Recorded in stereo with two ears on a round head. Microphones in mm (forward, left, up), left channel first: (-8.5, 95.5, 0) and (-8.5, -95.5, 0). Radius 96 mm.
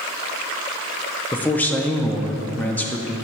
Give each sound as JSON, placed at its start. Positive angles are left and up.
{"t": 1.3, "sound": "a man speaking", "side_deg": 10, "distance_m": 0.6}